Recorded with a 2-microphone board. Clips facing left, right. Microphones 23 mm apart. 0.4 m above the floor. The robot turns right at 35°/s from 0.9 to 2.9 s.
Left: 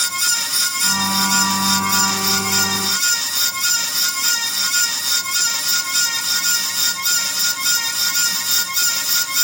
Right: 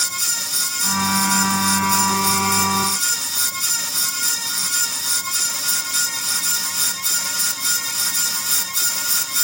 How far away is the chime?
I don't hear a chime.